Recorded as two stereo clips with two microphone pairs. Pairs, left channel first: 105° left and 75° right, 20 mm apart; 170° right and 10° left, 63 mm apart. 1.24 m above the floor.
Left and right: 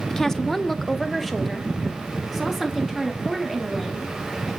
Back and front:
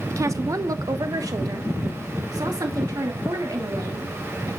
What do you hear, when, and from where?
0.1 s a woman speaking: 40° left, 0.5 m; by 4.5 s 5° left, 3 m